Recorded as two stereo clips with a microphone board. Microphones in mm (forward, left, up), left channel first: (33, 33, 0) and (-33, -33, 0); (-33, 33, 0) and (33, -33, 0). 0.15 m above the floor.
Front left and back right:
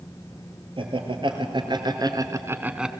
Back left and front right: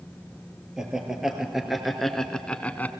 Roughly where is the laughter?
Behind right.